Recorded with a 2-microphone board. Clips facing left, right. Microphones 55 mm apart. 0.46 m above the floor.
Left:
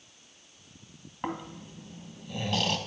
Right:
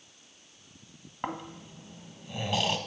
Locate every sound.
1.2 s snoring: 15° right (ahead or behind), 0.8 m